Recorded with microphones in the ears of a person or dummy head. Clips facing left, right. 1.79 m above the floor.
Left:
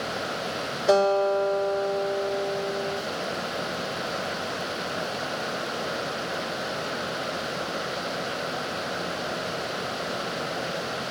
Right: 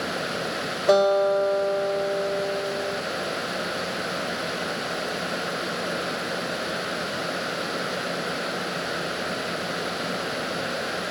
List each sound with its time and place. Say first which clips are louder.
0.9 s a guitar: right 2 dB; 5° right (ahead or behind), 2.5 m